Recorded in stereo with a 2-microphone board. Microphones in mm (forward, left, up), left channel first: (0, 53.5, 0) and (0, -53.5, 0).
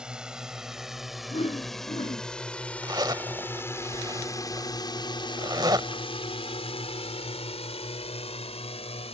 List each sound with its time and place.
0.0 s a drone: 5° right (ahead or behind); by 9.2 s 70° left (ahead or behind)
1.3 s a whoosh: 65° left (ahead or behind)
2.8 s a zipper: 40° right (ahead or behind)